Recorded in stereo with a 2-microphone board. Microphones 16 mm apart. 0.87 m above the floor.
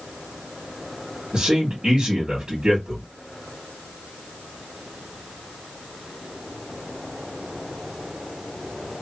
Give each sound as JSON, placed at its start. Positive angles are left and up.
{"t": 1.3, "sound": "a man speaking", "side_deg": -55, "distance_m": 1.4}